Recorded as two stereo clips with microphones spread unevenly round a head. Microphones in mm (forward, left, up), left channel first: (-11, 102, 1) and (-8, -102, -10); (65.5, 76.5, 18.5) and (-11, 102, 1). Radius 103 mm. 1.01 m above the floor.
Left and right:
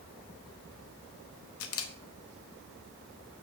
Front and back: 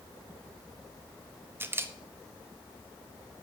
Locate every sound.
1.6 s a camera shutter: 105° left, 1.2 m